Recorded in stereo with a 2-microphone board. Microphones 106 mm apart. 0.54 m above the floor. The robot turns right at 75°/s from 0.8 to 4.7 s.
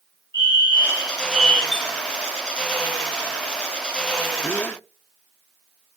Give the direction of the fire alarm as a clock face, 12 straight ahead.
1 o'clock.